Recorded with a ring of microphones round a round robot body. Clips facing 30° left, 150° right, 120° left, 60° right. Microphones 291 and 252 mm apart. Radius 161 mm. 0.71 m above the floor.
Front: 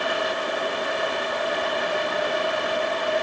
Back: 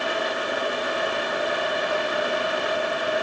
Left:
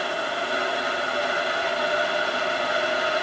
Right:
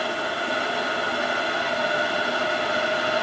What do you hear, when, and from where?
Only background noise.